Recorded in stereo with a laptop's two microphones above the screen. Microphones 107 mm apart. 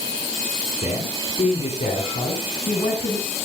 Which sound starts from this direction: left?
A man speaking, at 0.8 s.